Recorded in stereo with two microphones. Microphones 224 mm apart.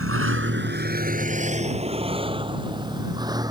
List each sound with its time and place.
0.0 s a vehicle: 80° right; by 3.5 s 15° right (ahead or behind)